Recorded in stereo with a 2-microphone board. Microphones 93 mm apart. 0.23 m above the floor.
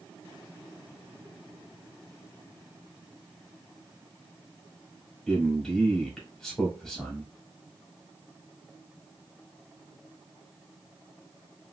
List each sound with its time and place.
5.3 s a man speaking: 5° left (ahead or behind), 1.4 m